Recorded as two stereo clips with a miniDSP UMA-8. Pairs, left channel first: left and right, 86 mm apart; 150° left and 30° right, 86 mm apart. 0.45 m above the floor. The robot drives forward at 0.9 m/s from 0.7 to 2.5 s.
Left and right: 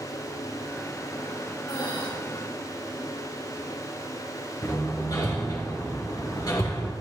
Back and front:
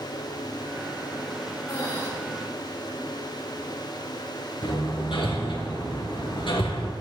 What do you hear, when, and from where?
1.7 s breathing: 100° left, 5.5 m; by 2.1 s 105° left, 5.5 m
4.6 s hammering: 135° left, 3 m